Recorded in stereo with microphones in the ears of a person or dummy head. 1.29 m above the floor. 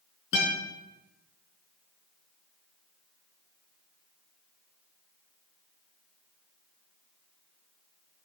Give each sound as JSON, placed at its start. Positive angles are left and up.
{"t": 0.3, "sound": "a guitar", "side_deg": 65, "distance_m": 4.0}